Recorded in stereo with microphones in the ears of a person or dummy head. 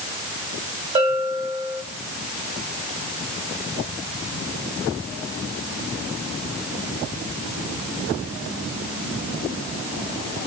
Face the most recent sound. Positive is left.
turn(degrees=-25)  # may be behind; listen again after turning